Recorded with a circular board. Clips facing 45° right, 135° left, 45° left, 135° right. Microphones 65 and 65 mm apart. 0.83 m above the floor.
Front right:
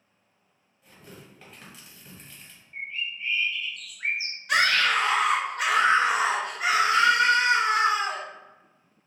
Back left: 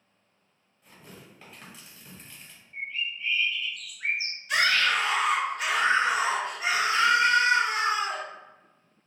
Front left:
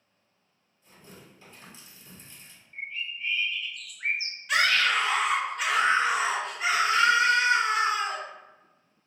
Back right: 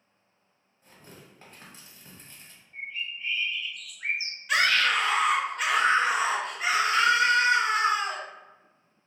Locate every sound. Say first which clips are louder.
0.8 s tearing paper: front right 1 dB, even; 140° right, 1.5 m
2.7 s a bird: even, even; 10° left, 1.2 m
4.5 s a scream: front right 2 dB, even; 45° right, 0.7 m